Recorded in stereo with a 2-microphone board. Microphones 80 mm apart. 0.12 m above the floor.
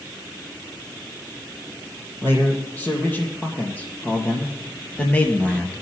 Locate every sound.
2.2 s a man speaking: 20° left (ahead or behind), 3.5 m; by 5.8 s 15° left (ahead or behind), 1.9 m